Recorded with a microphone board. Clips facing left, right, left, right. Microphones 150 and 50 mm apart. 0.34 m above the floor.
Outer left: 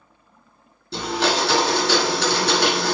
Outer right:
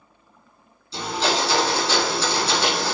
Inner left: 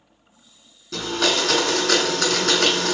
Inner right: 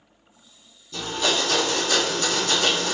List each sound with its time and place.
0.9 s a blender: 70° left (ahead or behind), 1.0 m